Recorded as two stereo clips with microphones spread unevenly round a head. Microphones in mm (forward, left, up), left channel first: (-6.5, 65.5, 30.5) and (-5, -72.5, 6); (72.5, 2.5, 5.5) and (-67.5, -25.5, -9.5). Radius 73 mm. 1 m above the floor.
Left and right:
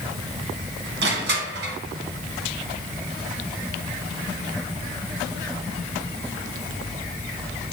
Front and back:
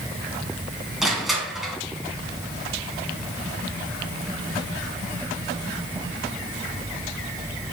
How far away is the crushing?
About 2.5 m.